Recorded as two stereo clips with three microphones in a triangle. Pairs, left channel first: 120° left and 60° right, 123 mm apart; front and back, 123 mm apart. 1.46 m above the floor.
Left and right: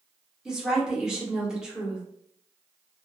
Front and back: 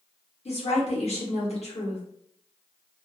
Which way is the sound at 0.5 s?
25° left.